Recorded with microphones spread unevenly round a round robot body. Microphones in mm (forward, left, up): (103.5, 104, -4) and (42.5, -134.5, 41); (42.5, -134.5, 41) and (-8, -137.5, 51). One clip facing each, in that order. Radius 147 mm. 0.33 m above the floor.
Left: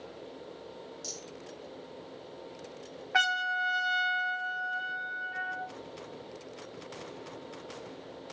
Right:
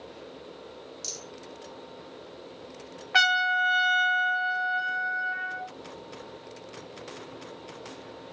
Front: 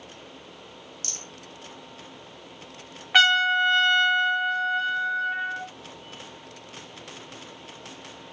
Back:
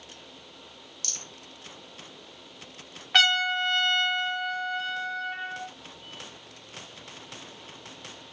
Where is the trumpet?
65° right, 1.2 m.